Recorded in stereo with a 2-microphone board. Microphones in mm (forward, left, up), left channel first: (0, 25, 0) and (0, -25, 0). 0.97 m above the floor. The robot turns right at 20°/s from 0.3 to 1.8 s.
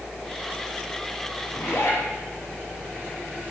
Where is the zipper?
75° left (ahead or behind), 4.5 m; by 2.0 s 70° left (ahead or behind), 4.5 m.